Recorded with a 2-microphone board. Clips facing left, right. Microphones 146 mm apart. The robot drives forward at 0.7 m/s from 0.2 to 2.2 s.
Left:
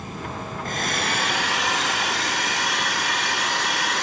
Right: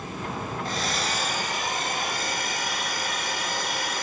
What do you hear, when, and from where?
0.7 s a hair dryer: 50° left (ahead or behind), 1.3 m; by 4.0 s 75° left (ahead or behind), 1.0 m